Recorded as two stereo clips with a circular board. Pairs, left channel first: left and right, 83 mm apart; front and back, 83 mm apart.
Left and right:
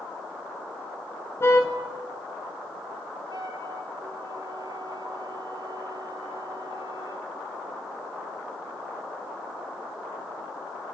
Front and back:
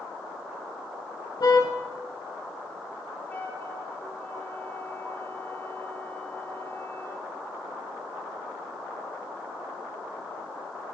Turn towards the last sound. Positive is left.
turn(degrees=-65)